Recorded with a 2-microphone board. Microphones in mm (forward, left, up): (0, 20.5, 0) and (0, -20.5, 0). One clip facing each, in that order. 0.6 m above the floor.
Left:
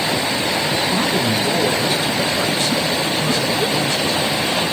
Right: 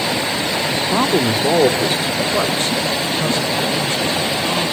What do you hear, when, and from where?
0.8 s a man speaking: 35° right (ahead or behind), 1.3 m; by 4.6 s 40° right (ahead or behind), 5.5 m